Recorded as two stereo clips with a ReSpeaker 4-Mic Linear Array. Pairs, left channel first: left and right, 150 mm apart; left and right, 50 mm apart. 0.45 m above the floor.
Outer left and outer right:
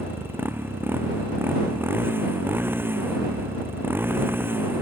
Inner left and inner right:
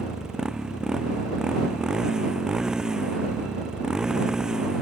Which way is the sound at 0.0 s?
15° right (ahead or behind).